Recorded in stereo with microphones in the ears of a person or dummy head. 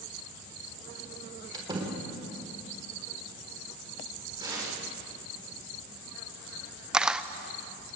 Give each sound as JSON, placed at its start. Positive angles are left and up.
{"t": 1.5, "sound": "a door slam", "side_deg": -25, "distance_m": 4.5}
{"t": 4.4, "sound": "tearing paper", "side_deg": -25, "distance_m": 7.0}
{"t": 6.9, "sound": "a camera shutter", "side_deg": -5, "distance_m": 0.7}